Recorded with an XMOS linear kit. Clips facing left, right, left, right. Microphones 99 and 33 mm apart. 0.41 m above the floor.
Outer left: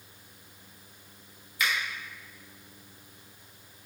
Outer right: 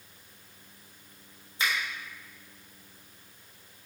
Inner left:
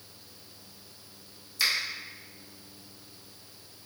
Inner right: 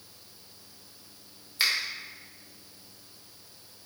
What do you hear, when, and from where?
1.6 s a finger snap: 30° right (ahead or behind), 1.1 m